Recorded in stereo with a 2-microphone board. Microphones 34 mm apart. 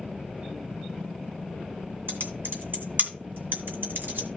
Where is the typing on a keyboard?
70° right (ahead or behind), 2 m.